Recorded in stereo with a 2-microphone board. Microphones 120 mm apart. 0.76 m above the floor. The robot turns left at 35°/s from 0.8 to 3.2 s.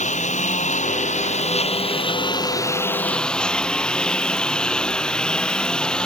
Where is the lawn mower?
90° left; by 6.1 s 5° left.